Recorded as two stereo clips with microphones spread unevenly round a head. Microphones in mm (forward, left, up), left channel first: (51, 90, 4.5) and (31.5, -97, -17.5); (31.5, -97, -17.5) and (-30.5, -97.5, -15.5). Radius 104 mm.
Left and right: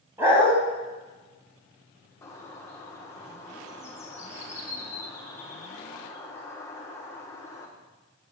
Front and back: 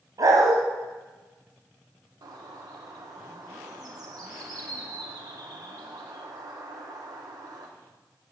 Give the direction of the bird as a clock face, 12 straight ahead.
7 o'clock.